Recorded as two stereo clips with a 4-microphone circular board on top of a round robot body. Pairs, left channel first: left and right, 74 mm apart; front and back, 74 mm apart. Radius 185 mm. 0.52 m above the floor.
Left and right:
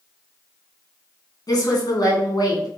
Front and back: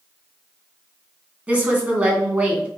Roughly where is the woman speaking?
Behind left.